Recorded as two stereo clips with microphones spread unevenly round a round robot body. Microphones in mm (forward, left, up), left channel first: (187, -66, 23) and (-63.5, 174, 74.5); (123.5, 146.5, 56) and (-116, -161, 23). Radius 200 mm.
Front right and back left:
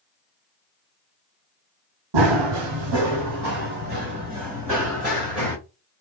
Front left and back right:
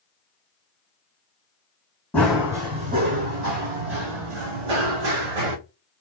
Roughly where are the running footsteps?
Behind left.